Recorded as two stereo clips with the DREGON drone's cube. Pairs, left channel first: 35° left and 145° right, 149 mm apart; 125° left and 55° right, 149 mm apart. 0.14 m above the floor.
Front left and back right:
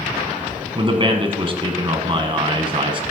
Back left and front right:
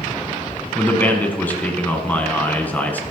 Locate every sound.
0.8 s a man speaking: 165° right, 1.4 m